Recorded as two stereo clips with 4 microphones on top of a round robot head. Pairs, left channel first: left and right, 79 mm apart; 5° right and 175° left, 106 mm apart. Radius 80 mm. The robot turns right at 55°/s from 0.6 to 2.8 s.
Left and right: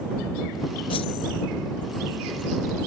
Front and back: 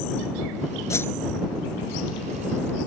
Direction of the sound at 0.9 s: 60° left.